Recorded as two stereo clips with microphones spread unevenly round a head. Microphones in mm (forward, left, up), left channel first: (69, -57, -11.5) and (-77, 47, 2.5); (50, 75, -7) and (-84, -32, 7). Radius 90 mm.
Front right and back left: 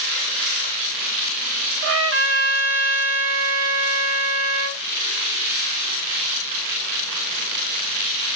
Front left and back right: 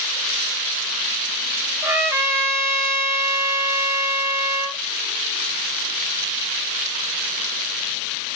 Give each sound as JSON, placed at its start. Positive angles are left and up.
{"t": 1.8, "sound": "a trumpet", "azimuth_deg": 140, "distance_m": 0.8}